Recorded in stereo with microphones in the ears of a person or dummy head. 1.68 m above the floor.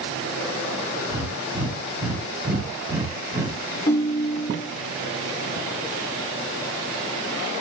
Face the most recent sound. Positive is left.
turn(degrees=30)  # may be behind; listen again after turning